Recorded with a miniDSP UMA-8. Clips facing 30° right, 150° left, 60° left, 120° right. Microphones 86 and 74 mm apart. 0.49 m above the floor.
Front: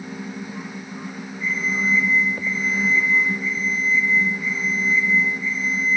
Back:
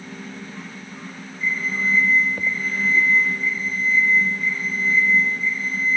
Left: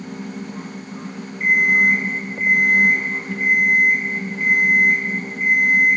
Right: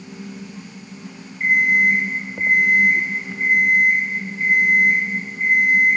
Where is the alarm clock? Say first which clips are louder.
Even, even; 50° right, 6 m.